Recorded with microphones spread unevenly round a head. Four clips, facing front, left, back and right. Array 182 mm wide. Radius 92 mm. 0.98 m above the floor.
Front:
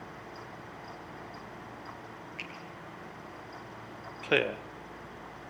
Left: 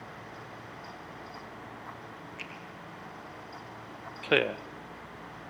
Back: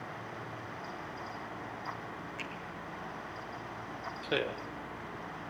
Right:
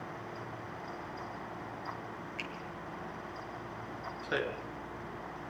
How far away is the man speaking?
About 0.8 m.